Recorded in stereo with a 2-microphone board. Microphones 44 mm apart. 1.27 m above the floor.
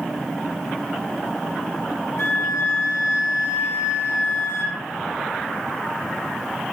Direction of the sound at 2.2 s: 85° left.